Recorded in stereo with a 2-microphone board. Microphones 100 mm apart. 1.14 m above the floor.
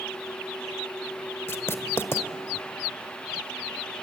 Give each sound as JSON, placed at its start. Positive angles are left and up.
{"t": 1.5, "sound": "writing", "side_deg": 25, "distance_m": 1.4}